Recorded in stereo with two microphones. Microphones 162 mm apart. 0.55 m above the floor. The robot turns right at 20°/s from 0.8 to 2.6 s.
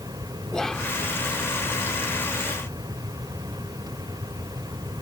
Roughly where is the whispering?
Centre.